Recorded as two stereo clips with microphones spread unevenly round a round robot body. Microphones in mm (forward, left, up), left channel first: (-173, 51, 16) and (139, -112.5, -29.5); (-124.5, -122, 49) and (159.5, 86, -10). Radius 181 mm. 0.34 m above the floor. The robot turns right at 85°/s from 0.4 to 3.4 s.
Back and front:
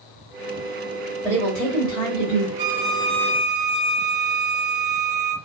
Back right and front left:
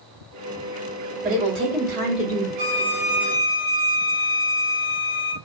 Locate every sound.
1.2 s a woman speaking: 55° left, 1.7 m; by 2.5 s 160° left, 1.7 m
2.6 s a violin: 25° left, 1.0 m; by 5.3 s 95° left, 1.0 m